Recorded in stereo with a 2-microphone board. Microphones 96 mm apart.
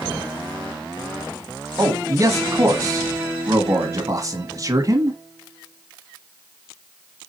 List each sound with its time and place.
1.8 s a man speaking: 40° right (ahead or behind), 1.5 m